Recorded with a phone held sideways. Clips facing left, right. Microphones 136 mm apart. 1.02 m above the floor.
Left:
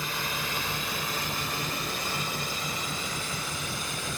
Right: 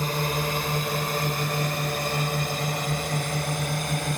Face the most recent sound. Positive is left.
turn(degrees=-55)  # may be behind; listen again after turning